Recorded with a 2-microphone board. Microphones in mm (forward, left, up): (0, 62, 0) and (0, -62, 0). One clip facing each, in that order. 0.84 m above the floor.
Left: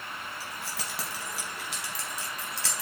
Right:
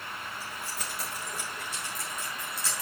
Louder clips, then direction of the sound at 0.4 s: Even; 75° left (ahead or behind).